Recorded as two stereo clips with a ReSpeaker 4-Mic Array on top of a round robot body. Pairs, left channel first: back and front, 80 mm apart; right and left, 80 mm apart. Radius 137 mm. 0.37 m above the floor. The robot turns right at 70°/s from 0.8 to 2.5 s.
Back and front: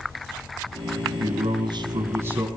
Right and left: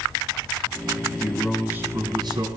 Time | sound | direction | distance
1.2 | a man speaking | 15° right | 5 m